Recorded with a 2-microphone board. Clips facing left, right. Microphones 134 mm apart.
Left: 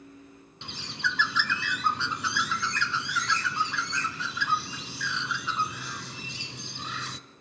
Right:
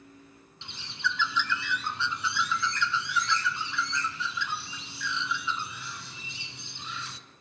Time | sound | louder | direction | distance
0.6 | a bird | even | 70° left (ahead or behind) | 0.9 m